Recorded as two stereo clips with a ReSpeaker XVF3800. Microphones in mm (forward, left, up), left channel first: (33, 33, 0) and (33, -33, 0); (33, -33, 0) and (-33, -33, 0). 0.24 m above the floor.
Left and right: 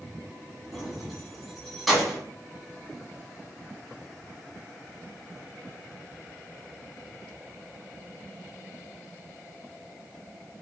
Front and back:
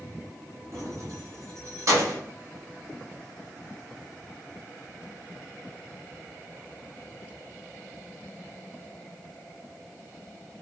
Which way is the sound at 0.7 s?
Straight behind.